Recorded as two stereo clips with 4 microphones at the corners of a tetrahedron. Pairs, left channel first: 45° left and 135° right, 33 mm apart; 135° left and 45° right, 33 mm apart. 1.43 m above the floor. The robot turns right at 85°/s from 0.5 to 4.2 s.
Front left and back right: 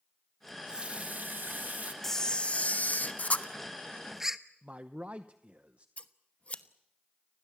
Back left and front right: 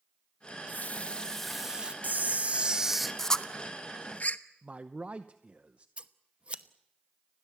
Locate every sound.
0.5 s a running tap: 140° left, 1.5 m; by 1.9 s 95° right, 1.5 m
2.0 s a camera shutter: 35° right, 0.9 m; by 4.4 s 145° left, 0.9 m
4.6 s a man speaking: 90° right, 0.8 m
6.0 s scissors: 5° left, 0.9 m